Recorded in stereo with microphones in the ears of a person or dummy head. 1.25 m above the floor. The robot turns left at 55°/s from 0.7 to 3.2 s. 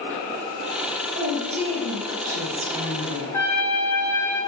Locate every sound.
1.1 s a woman speaking: 30° right, 1.1 m; by 3.2 s 145° right, 1.1 m
3.3 s a trumpet: 10° left (ahead or behind), 0.8 m